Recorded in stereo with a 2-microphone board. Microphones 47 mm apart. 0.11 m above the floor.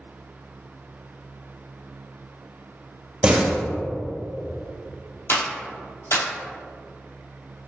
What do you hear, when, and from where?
3.2 s a door slam: 25° right (ahead or behind), 1.7 m
5.3 s a clap: 55° left (ahead or behind), 2 m